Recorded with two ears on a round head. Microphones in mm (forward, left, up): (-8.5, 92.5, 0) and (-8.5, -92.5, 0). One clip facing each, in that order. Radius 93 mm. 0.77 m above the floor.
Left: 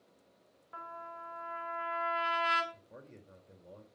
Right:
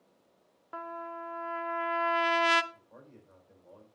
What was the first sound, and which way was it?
A trumpet, 60° right (ahead or behind).